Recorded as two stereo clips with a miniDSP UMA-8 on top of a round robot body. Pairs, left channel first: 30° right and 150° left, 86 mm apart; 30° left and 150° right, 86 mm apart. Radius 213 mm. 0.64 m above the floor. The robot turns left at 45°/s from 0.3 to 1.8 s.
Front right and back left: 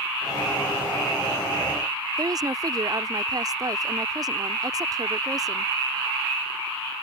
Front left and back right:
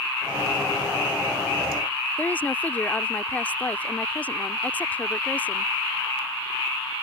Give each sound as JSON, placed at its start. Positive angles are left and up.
{"t": 2.2, "sound": "a woman speaking", "azimuth_deg": 105}